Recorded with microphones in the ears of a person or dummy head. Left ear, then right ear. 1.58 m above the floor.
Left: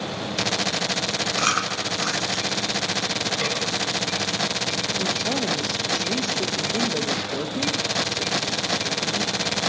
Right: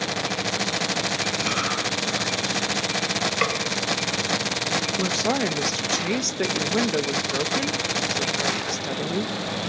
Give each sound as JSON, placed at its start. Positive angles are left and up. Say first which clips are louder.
{"t": 1.4, "sound": "chewing", "louder": "left 1 dB", "side_deg": 60, "distance_m": 5.5}
{"t": 3.4, "sound": "a snare drum", "louder": "right 2 dB", "side_deg": -35, "distance_m": 4.0}
{"t": 5.0, "sound": "a woman speaking", "louder": "right 1 dB", "side_deg": -60, "distance_m": 2.0}